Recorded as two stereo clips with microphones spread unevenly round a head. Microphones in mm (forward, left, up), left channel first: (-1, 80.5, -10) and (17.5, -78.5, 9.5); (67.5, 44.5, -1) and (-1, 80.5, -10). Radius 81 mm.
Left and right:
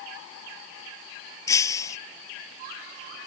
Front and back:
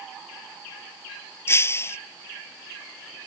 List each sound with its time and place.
1.5 s breaking glass: 25° left